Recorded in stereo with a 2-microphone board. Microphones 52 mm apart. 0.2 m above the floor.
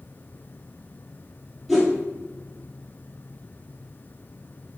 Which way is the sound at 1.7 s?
5° right (ahead or behind).